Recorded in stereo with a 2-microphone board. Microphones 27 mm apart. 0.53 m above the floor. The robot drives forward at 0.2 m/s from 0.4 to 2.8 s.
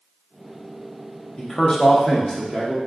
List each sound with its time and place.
1.4 s a man speaking: 30° left (ahead or behind), 0.6 m; by 2.8 s 25° left (ahead or behind), 0.7 m